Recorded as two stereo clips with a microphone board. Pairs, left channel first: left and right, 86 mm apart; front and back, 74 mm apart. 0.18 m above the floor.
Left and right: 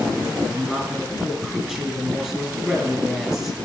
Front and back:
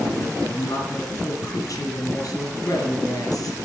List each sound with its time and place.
0.5 s a woman speaking: 10° right, 3 m